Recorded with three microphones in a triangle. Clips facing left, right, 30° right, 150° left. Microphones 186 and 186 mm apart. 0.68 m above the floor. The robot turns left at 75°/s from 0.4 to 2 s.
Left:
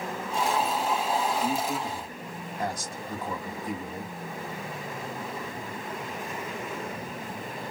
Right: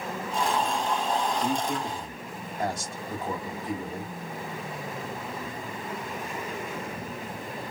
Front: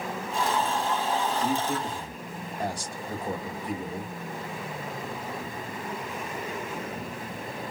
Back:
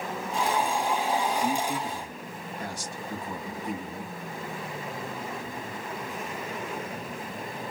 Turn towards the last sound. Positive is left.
turn(degrees=-25)